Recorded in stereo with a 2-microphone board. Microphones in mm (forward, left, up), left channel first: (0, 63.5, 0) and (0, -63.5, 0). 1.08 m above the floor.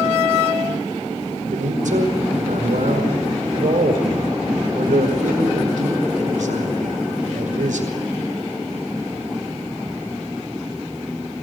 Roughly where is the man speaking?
Right.